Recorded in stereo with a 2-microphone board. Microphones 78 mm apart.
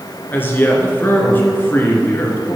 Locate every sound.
0.3 s a woman speaking: 25° left (ahead or behind), 2 m